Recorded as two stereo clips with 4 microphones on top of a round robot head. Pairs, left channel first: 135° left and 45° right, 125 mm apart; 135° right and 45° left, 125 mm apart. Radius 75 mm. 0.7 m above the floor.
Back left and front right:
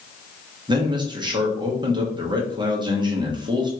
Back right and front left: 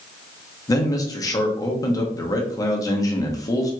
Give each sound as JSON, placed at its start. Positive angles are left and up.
{"t": 0.7, "sound": "a man speaking", "azimuth_deg": -85, "distance_m": 1.0}